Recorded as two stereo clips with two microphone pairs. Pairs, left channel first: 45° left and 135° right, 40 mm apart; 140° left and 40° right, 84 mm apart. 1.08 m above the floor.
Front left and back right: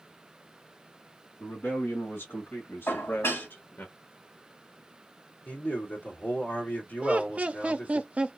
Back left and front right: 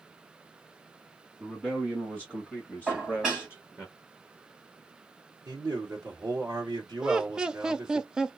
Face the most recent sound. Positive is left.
turn(degrees=-115)